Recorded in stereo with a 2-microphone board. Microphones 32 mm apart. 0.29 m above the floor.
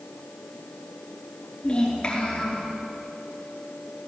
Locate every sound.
1.6 s a child speaking: 25° left (ahead or behind), 3.5 m